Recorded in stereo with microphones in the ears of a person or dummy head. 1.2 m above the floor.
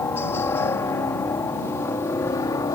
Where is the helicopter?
15° left (ahead or behind).